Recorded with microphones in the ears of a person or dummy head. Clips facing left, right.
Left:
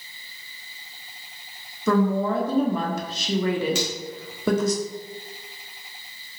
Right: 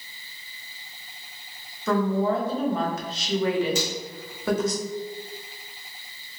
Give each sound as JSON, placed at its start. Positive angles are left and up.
{"t": 1.9, "sound": "a woman speaking", "side_deg": 90, "distance_m": 0.8}
{"t": 3.8, "sound": "a finger snap", "side_deg": 55, "distance_m": 0.9}